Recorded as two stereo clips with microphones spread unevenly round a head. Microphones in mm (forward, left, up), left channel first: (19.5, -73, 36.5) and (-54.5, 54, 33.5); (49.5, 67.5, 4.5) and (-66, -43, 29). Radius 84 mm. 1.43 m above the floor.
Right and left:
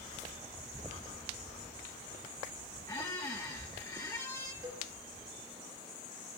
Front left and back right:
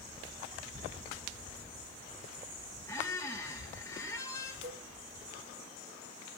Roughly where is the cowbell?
Behind.